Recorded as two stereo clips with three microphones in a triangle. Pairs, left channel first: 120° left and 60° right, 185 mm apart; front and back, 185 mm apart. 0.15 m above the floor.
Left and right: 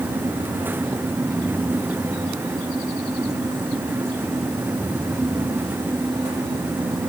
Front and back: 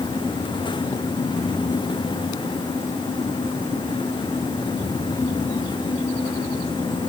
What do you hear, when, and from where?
Only background noise.